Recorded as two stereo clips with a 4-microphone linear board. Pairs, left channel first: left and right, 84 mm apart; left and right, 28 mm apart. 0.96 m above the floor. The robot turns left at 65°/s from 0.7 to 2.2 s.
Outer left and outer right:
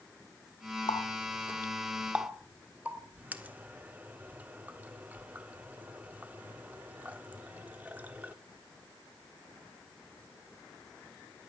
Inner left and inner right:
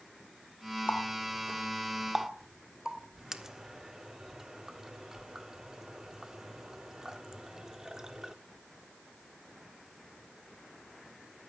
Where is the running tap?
65° left (ahead or behind), 1.3 m; by 8.3 s 20° right (ahead or behind), 1.3 m.